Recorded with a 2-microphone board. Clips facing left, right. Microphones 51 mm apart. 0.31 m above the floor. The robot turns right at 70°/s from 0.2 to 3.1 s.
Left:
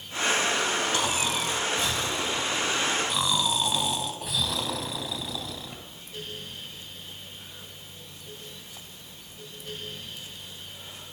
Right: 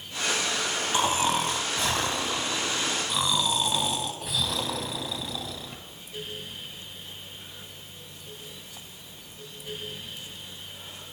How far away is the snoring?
About 2 m.